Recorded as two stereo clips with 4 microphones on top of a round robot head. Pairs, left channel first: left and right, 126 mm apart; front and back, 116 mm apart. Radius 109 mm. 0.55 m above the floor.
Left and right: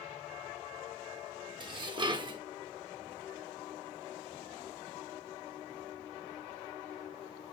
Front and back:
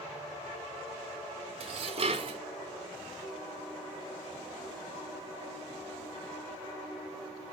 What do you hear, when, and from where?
1.6 s dishes clattering: 145° right, 0.9 m